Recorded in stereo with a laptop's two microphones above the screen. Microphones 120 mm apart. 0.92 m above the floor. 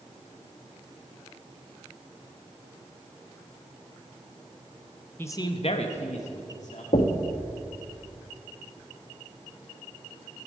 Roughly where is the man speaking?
Centre.